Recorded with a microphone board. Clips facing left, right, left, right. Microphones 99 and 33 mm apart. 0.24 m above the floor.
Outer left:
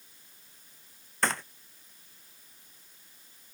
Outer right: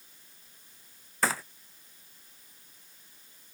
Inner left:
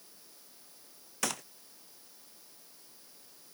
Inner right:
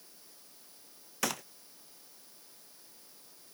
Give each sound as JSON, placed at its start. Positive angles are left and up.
{"t": 1.2, "sound": "a gunshot", "side_deg": -5}